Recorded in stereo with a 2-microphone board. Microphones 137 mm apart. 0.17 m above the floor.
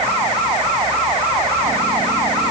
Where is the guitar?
I don't hear a guitar.